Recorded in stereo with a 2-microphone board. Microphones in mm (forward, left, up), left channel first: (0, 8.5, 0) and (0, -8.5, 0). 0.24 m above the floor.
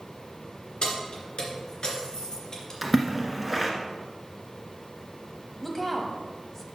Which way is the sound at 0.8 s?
65° left (ahead or behind).